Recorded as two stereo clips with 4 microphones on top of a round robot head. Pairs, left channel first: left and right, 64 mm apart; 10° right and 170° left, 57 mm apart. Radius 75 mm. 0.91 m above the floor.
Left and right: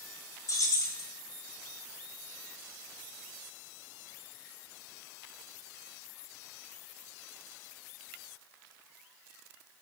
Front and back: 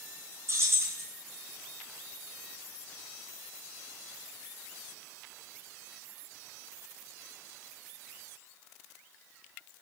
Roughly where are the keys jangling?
Behind left.